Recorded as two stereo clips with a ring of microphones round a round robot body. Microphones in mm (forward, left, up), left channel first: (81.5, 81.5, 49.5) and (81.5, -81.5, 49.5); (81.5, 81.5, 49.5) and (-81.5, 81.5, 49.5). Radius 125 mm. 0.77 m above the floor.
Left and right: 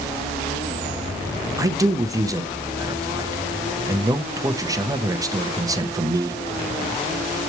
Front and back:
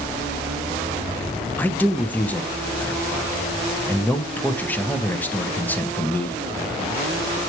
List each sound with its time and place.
1.6 s a man speaking: 65° right, 0.8 m